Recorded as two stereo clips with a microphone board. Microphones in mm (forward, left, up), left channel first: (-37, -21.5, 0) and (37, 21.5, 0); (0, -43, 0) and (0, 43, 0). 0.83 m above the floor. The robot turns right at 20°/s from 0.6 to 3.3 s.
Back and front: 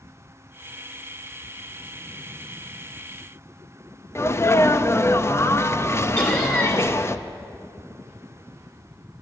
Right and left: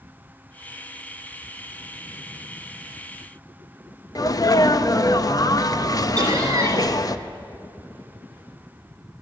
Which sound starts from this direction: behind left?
Laughter, at 6.2 s.